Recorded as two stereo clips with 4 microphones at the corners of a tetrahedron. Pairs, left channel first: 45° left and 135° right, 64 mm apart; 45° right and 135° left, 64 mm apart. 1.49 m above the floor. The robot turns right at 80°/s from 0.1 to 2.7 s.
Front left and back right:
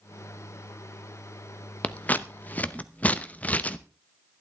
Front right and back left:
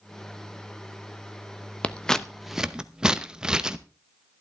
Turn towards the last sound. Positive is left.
turn(degrees=75)